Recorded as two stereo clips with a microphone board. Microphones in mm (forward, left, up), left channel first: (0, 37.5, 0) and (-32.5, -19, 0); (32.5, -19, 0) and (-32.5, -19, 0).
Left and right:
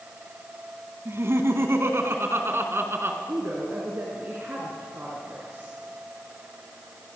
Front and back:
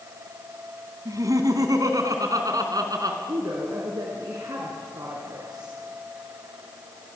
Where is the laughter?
165° right, 3 m; by 3.2 s 170° right, 4 m.